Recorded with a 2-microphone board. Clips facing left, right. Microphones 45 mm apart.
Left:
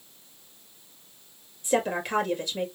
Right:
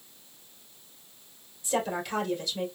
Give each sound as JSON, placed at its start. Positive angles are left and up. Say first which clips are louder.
{"t": 1.6, "sound": "a woman speaking", "louder": "left 4 dB", "side_deg": 45, "distance_m": 2.0}